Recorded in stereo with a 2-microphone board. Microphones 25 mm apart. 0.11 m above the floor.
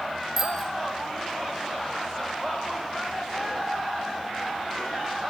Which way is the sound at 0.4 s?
10° right (ahead or behind).